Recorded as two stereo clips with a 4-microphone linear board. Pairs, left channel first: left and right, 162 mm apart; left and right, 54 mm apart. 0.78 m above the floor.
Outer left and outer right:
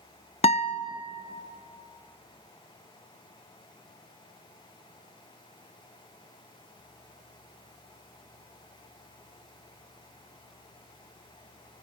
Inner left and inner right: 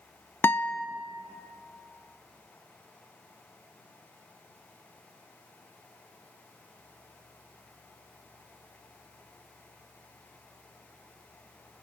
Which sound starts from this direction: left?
A guitar, at 0.4 s.